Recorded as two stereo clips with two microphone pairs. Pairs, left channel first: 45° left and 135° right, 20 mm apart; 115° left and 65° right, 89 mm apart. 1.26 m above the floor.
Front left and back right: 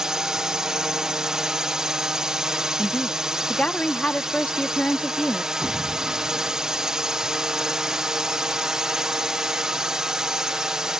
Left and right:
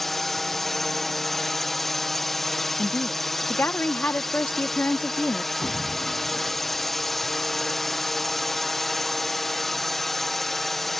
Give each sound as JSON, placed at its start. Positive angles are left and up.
{"t": 0.0, "sound": "a drone", "azimuth_deg": -155}
{"t": 2.8, "sound": "a woman speaking", "azimuth_deg": 50}
{"t": 5.6, "sound": "an explosion", "azimuth_deg": 180}